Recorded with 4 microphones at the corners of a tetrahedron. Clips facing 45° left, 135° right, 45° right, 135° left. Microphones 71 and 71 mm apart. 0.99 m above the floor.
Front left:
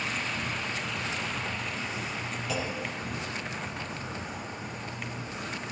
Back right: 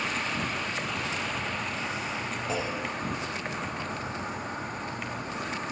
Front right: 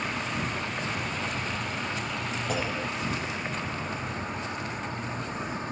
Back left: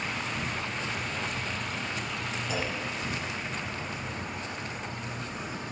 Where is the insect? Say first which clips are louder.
Back right 2 dB, front right 2 dB; 95° right, 0.8 m.